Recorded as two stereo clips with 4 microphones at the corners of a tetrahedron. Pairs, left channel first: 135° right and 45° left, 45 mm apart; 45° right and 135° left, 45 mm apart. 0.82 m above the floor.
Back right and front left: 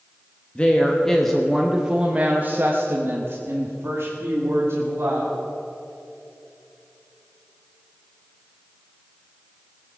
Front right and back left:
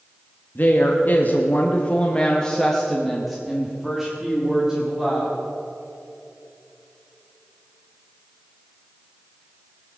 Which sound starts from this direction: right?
A woman speaking, at 0.6 s.